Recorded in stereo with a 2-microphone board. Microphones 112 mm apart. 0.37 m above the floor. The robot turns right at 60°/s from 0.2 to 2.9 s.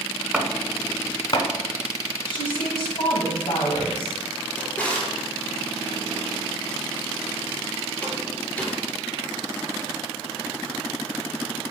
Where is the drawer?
15° left (ahead or behind), 2.5 m.